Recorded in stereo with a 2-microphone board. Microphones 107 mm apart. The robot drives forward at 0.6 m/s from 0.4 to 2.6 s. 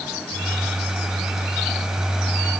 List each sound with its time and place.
Only background noise.